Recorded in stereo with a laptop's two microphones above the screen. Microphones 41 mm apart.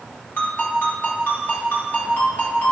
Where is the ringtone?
50° left (ahead or behind), 1.6 m.